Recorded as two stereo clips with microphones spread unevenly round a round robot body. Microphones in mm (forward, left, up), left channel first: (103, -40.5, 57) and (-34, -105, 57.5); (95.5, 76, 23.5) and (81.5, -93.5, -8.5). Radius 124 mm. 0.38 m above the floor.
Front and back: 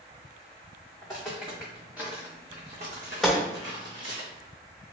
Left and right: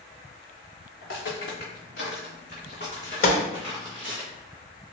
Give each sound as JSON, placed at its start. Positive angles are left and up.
{"t": 1.0, "sound": "footsteps", "azimuth_deg": 100, "distance_m": 1.5}
{"t": 3.2, "sound": "a gunshot", "azimuth_deg": 110, "distance_m": 0.5}